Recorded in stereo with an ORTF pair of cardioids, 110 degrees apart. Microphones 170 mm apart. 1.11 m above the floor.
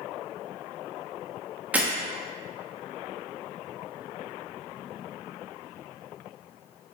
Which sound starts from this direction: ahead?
Breaking glass, at 1.7 s.